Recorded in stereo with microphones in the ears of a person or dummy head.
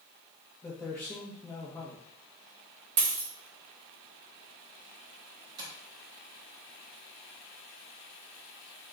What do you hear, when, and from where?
0.6 s a man speaking: 10° left (ahead or behind), 0.7 m
3.0 s a dropped coin: 40° right (ahead or behind), 0.9 m
5.6 s tapping: 20° right (ahead or behind), 0.8 m